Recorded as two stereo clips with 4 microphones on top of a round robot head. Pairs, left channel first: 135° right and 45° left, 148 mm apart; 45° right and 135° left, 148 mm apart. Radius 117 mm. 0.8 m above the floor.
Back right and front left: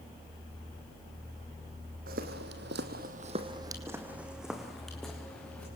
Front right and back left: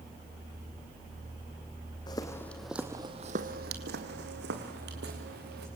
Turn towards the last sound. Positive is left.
turn(degrees=145)